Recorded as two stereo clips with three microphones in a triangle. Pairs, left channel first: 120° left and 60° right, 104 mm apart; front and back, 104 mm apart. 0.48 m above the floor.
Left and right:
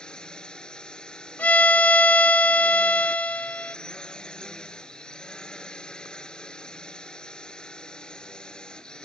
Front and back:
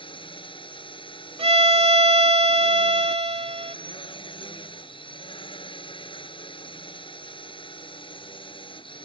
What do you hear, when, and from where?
0.0 s a drone: 35° left
1.4 s a violin: 165° right